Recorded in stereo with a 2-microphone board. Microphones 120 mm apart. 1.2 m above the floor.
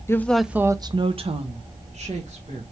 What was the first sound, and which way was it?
A woman speaking, 20° left (ahead or behind).